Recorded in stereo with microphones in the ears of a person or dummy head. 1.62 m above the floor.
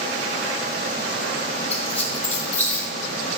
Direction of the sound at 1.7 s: 10° left (ahead or behind).